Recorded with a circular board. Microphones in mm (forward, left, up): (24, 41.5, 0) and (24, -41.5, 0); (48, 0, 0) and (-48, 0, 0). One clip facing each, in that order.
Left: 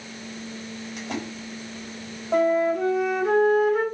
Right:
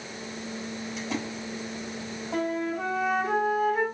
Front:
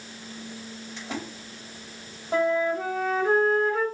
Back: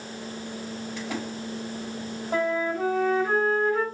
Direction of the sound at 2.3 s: 70° left.